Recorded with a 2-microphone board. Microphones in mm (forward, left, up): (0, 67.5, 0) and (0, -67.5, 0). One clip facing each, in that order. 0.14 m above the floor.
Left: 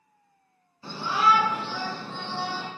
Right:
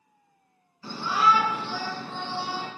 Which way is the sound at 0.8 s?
25° left (ahead or behind).